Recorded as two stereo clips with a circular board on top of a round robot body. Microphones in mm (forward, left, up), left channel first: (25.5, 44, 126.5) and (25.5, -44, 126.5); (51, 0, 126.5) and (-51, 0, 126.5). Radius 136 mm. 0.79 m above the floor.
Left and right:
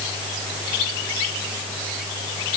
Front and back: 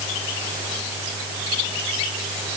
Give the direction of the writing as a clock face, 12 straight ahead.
I don't hear writing.